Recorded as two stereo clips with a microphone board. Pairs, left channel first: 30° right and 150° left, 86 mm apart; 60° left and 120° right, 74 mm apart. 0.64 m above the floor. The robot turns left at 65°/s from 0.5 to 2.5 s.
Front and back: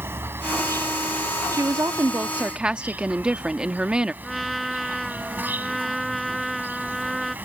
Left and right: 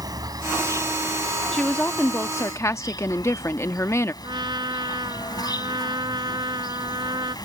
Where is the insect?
150° right; by 7.5 s 80° left.